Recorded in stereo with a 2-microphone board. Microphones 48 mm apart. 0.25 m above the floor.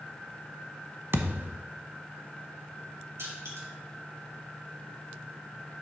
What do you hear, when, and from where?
1.1 s a thud: 60° right (ahead or behind), 0.8 m
3.2 s crushing: 80° right, 3.5 m